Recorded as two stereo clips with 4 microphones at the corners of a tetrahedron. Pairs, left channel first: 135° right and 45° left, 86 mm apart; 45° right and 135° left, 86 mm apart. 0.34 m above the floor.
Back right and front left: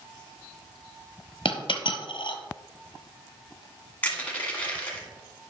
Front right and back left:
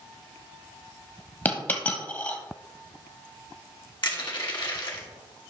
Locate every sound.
1.4 s a dropped coin: 115° right, 1.2 m
4.0 s crushing: 65° right, 2 m